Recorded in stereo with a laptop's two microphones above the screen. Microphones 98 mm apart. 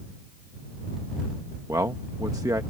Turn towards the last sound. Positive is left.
turn(degrees=-35)  # may be behind; listen again after turning